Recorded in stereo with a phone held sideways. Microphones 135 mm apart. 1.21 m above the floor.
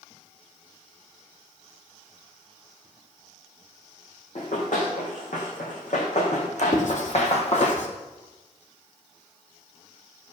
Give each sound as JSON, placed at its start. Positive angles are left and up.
{"t": 4.3, "sound": "running footsteps", "side_deg": 70, "distance_m": 4.5}
{"t": 6.7, "sound": "writing", "side_deg": 65, "distance_m": 2.5}